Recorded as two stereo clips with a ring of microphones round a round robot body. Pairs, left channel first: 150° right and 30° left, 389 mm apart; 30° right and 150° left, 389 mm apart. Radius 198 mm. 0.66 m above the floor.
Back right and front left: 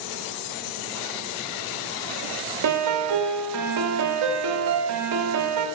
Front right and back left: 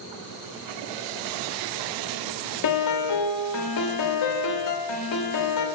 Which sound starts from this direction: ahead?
A piano, at 2.6 s.